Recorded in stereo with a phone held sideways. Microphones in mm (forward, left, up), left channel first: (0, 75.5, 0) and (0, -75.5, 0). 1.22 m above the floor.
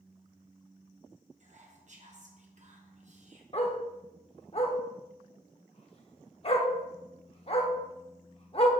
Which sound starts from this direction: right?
Whispering, at 1.4 s.